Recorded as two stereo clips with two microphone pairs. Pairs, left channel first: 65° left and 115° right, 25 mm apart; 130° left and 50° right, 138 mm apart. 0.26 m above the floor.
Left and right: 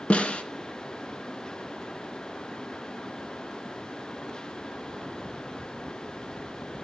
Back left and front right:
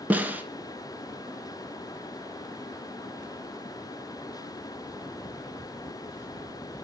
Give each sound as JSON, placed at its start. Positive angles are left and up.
{"t": 0.1, "sound": "a snare drum", "azimuth_deg": 25, "distance_m": 0.5}